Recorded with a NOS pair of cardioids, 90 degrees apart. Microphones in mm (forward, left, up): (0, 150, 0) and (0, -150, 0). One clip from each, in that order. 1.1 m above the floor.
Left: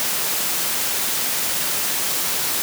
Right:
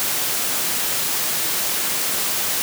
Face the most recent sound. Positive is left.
No sound to turn to.